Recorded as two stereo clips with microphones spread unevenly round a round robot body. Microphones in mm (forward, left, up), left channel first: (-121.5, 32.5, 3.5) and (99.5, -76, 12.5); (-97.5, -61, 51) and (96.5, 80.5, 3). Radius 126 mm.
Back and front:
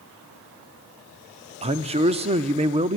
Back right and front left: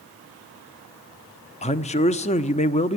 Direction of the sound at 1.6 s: 80° right.